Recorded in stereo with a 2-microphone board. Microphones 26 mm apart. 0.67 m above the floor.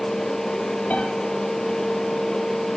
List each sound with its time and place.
0.9 s a piano: 75° left (ahead or behind), 5 m